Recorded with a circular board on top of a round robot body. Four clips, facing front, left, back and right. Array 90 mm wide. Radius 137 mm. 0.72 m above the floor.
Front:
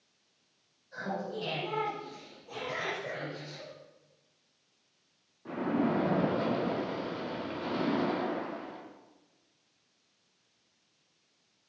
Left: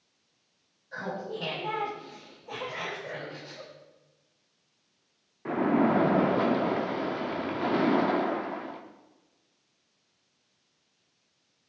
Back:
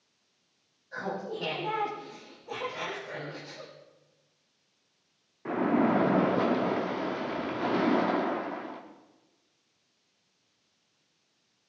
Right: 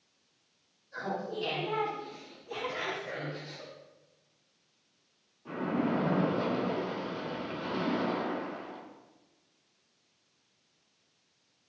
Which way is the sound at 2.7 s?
30° left.